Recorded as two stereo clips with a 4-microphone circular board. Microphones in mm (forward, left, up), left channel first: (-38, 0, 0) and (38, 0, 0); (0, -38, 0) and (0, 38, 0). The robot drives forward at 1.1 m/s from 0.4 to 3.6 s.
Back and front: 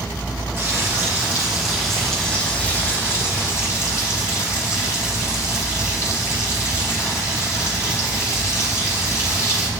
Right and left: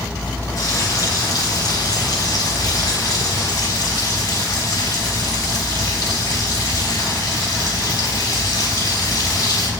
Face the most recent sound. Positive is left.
turn(degrees=-130)